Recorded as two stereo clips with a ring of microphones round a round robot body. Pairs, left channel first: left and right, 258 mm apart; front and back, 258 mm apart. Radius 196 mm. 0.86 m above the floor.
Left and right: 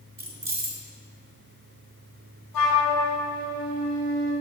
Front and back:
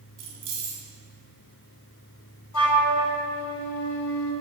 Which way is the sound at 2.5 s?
10° left.